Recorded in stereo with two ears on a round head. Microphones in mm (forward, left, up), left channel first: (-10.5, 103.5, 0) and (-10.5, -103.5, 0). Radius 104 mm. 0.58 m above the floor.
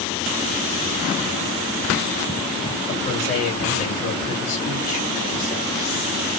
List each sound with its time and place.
2.9 s a man speaking: 35° left (ahead or behind), 2.5 m